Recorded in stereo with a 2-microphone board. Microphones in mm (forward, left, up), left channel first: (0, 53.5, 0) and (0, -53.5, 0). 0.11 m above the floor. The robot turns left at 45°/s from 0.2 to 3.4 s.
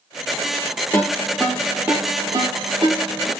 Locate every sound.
0.9 s a ringtone: 25° left (ahead or behind), 1.9 m; by 3.3 s 65° right (ahead or behind), 1.9 m